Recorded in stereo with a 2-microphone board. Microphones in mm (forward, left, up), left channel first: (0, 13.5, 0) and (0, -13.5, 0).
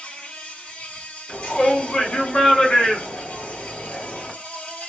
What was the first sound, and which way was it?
An insect, 55° left (ahead or behind).